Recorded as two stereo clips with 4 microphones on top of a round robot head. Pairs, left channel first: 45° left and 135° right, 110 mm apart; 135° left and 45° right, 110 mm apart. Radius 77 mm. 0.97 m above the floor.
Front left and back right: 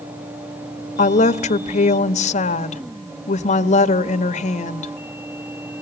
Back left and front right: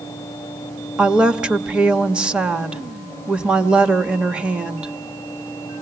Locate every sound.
1.0 s a woman speaking: 35° left, 1.3 m